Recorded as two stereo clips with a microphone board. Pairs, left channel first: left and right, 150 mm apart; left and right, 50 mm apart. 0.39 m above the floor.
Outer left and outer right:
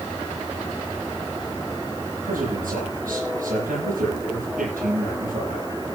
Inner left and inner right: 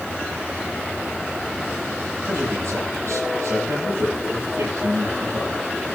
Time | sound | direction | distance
2.2 | a man speaking | 70° right (ahead or behind) | 10 m